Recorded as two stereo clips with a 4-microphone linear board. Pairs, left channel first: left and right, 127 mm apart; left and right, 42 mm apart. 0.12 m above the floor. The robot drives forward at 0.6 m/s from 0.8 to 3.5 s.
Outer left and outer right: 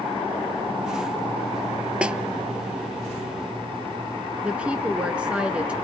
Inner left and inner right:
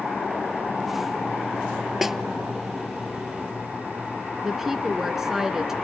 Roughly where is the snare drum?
Centre.